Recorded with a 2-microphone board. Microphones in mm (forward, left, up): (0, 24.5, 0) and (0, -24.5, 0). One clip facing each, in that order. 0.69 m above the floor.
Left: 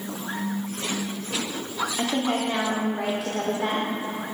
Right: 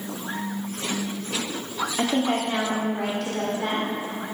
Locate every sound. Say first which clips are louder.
2.0 s a woman speaking: right 2 dB; 15° right (ahead or behind), 1.3 m; by 3.9 s 15° left (ahead or behind), 2.0 m